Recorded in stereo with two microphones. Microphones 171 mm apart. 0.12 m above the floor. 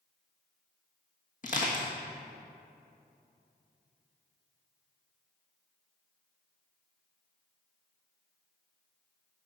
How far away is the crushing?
About 1.9 m.